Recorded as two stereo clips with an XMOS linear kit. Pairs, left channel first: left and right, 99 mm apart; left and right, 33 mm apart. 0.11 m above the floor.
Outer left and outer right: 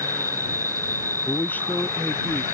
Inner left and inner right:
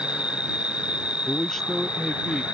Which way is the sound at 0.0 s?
30° right (ahead or behind).